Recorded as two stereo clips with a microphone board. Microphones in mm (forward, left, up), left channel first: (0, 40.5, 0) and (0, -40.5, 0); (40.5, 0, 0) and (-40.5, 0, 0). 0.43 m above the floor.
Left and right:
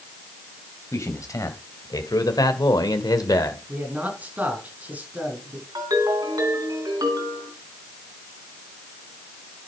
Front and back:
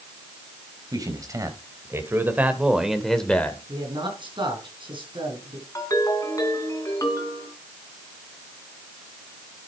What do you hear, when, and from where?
0.9 s a man speaking: 140° left, 2.5 m; by 3.6 s 65° left, 1.4 m
3.7 s a man speaking: 160° right, 5 m
5.8 s a ringtone: 50° right, 3 m